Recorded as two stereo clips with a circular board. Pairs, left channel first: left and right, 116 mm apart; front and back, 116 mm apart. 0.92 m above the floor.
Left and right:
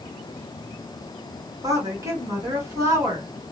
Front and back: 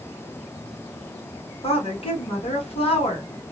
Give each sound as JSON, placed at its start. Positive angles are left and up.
{"t": 1.6, "sound": "a woman speaking", "azimuth_deg": -30, "distance_m": 1.3}